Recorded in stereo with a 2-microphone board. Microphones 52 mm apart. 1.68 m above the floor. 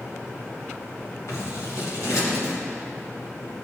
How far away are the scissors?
About 2.5 m.